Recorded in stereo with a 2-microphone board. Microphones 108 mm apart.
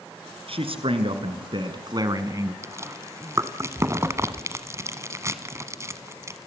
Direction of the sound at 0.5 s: 60° right (ahead or behind).